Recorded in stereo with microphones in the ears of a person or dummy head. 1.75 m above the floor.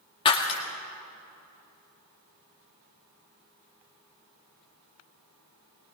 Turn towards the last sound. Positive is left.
turn(degrees=25)  # may be behind; listen again after turning